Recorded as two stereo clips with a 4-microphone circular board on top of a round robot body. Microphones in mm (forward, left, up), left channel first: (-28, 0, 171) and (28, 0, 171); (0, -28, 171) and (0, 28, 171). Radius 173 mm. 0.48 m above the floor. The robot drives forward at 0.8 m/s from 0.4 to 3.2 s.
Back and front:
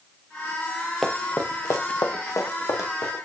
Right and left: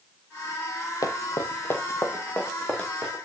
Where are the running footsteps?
90° right, 1.4 m; by 3.1 s 170° right, 4 m.